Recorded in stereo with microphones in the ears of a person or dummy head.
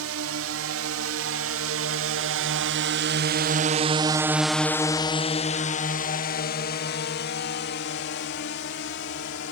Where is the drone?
80° right; by 9.5 s 65° left (ahead or behind).